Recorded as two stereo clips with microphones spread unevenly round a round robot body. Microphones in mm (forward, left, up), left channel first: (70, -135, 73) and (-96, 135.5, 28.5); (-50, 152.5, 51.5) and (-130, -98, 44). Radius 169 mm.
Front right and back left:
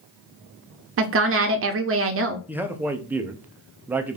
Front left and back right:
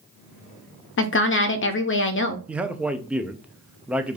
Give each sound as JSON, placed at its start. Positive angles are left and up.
{"t": 1.0, "sound": "a woman speaking", "azimuth_deg": 105, "distance_m": 0.6}
{"t": 2.5, "sound": "a man speaking", "azimuth_deg": 175, "distance_m": 0.5}